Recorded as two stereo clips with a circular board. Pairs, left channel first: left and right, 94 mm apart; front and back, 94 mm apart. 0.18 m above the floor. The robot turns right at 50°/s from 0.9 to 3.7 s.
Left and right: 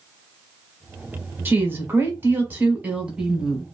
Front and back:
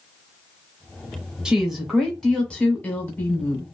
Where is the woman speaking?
110° right, 1.2 m; by 3.6 s 5° right, 1.2 m.